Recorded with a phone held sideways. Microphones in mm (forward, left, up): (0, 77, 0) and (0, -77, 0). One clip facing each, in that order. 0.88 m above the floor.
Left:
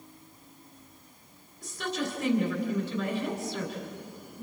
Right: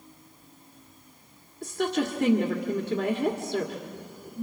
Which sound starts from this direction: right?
A woman speaking, at 1.6 s.